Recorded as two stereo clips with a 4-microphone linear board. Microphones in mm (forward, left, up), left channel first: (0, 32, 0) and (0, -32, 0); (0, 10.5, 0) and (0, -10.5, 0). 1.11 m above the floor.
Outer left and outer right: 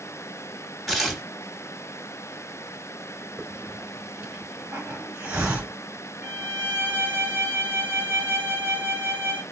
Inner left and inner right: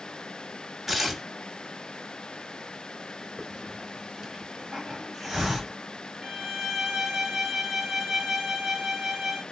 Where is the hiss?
25° right (ahead or behind), 2.5 m.